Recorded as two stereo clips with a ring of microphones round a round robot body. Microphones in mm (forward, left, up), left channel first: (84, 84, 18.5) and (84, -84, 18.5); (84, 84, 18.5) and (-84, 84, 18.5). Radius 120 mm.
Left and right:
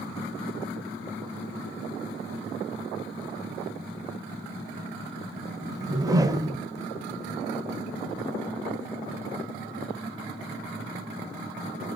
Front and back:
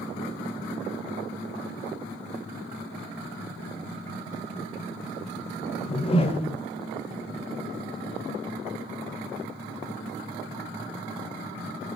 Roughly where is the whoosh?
Ahead right.